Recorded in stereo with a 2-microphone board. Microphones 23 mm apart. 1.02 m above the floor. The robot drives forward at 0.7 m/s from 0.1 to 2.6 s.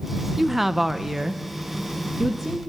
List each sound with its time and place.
0.4 s a woman speaking: 5° right (ahead or behind), 0.6 m